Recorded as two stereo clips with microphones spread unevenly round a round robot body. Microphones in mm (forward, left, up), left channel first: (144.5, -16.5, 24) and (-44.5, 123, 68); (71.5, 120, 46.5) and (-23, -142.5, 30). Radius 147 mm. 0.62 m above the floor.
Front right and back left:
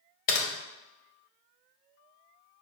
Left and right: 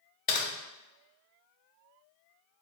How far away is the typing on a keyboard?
About 0.5 m.